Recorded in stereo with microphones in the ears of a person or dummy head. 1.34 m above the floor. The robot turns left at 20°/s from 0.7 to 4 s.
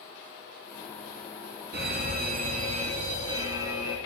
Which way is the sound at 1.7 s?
120° right.